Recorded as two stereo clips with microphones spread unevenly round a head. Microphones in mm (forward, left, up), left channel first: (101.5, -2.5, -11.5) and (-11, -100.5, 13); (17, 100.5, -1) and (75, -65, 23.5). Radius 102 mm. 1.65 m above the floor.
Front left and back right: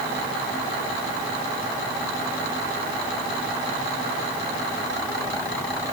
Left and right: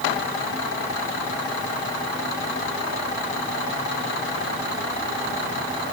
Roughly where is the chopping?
I don't hear chopping.